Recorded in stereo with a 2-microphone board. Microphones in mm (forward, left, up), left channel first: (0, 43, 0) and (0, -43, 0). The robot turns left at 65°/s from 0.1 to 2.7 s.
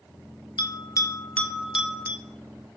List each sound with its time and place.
0.6 s a bell: 65° left (ahead or behind), 0.5 m; by 2.2 s 35° right (ahead or behind), 0.5 m